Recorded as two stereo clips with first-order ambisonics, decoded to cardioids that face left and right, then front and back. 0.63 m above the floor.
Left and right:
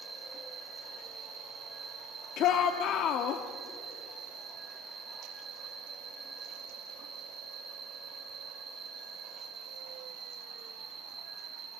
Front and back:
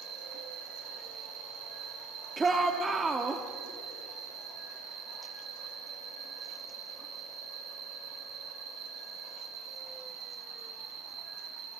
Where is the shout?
105° left, 1.1 m.